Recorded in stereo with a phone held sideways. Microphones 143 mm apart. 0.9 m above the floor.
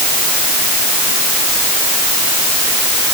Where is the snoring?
I don't hear snoring.